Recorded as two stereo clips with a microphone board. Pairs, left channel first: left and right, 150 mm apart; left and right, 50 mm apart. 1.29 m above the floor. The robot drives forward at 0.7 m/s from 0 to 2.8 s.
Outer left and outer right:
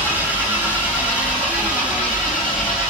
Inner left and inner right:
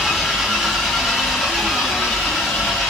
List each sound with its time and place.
0.0 s an engine running: 15° right (ahead or behind), 2.5 m; by 2.9 s 5° right (ahead or behind), 4 m